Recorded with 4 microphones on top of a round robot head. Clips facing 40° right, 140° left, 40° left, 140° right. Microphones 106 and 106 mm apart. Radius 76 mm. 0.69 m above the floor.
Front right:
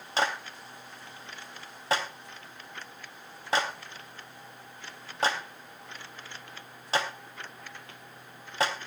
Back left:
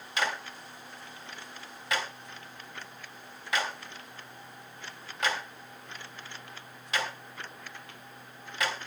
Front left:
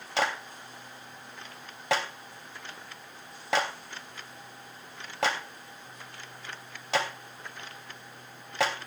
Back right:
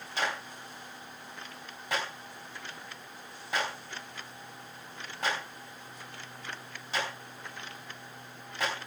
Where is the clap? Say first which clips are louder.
Front right 3 dB, front left 4 dB; 20° left, 3.5 m.